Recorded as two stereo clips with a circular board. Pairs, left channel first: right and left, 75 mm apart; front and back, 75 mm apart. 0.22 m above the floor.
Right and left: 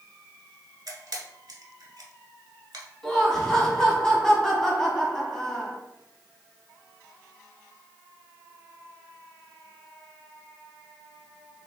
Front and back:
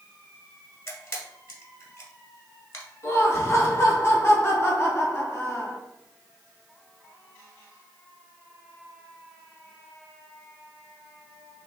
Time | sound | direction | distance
0.9 | a camera shutter | 55° left | 1.2 m
3.0 | laughter | 15° right | 1.3 m